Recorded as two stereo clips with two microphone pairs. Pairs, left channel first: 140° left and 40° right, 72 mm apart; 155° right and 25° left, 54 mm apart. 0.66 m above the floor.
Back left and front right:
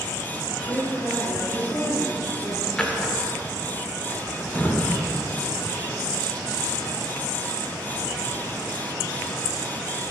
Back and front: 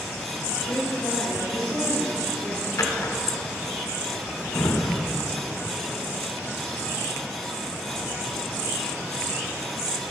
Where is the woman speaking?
175° right, 2 m.